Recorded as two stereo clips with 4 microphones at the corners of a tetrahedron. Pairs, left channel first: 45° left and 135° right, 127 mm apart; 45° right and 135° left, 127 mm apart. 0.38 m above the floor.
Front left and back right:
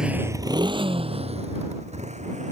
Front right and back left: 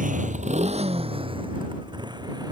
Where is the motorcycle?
140° left; by 2.5 s 165° right.